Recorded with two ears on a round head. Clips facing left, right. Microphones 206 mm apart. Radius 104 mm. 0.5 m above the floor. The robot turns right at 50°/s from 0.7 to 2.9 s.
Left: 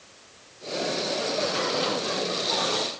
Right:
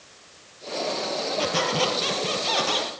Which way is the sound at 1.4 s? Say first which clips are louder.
Right 2 dB; 130° right.